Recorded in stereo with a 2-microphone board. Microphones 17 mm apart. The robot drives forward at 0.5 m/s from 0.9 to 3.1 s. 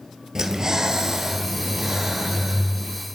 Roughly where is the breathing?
Right.